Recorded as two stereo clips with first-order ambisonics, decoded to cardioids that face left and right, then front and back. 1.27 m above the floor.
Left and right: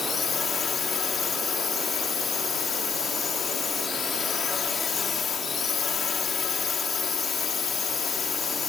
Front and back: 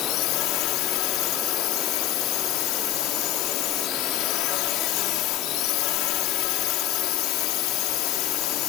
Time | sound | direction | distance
0.0 | a drone | 25° left | ?